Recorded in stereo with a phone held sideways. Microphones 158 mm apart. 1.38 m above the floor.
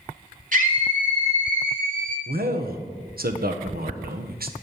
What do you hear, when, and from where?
0.5 s a scream: 55° right (ahead or behind), 4.5 m
2.3 s a man speaking: 75° right (ahead or behind), 1.2 m